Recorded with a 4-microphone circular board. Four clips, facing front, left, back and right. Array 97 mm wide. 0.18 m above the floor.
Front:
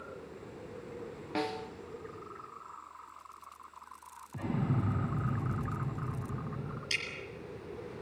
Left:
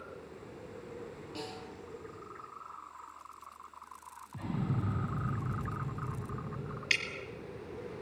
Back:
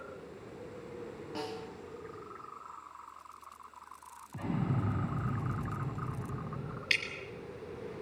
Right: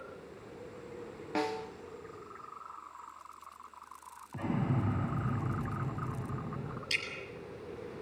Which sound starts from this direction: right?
An explosion, at 4.3 s.